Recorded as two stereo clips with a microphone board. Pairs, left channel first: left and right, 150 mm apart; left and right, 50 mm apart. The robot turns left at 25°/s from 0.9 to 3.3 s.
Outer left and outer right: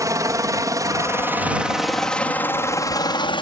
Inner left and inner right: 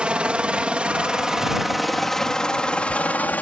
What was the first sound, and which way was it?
A helicopter, 20° right (ahead or behind).